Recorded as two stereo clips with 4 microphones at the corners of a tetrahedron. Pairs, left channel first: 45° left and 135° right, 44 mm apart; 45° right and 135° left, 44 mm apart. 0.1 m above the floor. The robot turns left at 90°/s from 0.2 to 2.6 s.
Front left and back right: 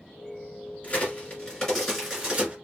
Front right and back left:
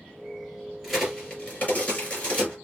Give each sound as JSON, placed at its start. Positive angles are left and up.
{"t": 0.8, "sound": "a crack", "azimuth_deg": 55, "distance_m": 2.0}